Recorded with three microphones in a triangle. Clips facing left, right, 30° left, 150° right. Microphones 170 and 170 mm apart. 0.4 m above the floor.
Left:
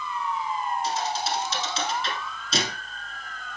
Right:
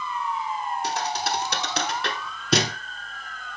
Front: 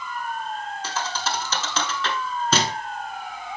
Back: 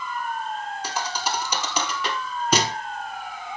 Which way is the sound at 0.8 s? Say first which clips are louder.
Even, even; 75° right.